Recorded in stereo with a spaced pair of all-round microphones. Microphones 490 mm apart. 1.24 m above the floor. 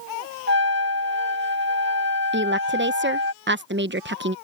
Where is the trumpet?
20° right (ahead or behind).